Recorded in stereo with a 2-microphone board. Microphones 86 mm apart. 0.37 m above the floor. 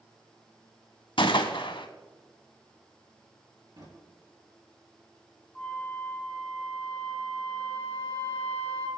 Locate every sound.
1.2 s a gunshot: 75° left (ahead or behind), 0.7 m
3.8 s a drawer: 45° right (ahead or behind), 4.5 m
5.5 s a flute: 15° left (ahead or behind), 3 m